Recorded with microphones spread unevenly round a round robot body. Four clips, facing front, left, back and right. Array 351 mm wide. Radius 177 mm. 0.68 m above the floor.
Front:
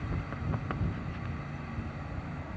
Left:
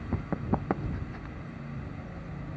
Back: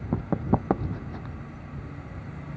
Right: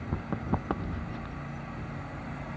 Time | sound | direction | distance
0.1 | running footsteps | 175° left | ?